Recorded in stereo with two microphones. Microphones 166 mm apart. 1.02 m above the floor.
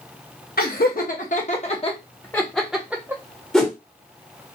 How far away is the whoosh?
About 0.9 m.